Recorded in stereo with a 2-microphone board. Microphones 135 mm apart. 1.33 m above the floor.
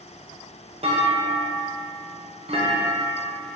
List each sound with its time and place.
0.8 s a clunk: 50° right (ahead or behind), 1.0 m